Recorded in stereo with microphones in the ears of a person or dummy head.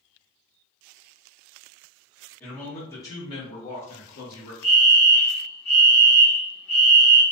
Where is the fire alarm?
25° left (ahead or behind), 1.5 m.